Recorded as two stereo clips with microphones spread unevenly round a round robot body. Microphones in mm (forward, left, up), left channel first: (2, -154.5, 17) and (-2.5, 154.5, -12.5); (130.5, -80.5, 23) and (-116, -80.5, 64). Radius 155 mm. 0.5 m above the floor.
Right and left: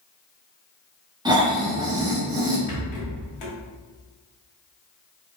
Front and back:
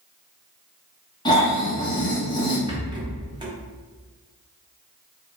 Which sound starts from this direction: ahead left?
Snoring, at 1.2 s.